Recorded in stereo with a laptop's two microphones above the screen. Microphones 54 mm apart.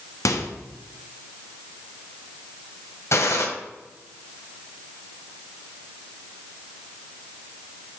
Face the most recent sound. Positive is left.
turn(degrees=60)  # may be behind; listen again after turning